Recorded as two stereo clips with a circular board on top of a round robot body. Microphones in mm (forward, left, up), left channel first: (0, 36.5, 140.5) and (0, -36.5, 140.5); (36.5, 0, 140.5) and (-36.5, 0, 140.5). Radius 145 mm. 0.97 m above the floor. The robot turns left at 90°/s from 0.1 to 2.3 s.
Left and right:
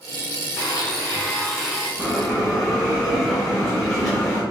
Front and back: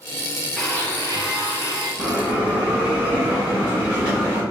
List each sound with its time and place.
0.6 s a blender: 85° left, 1.8 m; by 1.9 s 35° right, 1.8 m
2.0 s a bell: 155° right, 0.9 m; by 4.4 s 175° left, 0.9 m